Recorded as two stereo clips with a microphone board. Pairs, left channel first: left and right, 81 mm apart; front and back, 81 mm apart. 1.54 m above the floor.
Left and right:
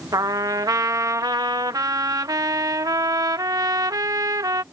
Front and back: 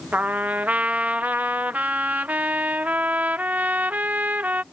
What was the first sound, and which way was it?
A trumpet, 115° right.